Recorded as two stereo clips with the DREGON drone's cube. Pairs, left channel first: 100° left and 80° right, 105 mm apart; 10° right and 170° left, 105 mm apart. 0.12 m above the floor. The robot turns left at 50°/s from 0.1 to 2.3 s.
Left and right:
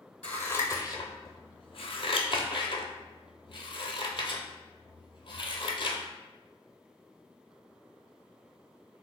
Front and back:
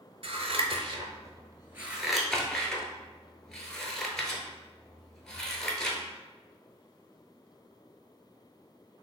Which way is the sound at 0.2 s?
175° left.